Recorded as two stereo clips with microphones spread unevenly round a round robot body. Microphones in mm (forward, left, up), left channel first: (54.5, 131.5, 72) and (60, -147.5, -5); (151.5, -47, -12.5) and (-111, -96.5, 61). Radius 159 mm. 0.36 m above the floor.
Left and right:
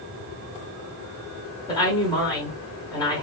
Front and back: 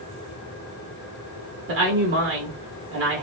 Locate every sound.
1.7 s a woman speaking: 175° right, 0.9 m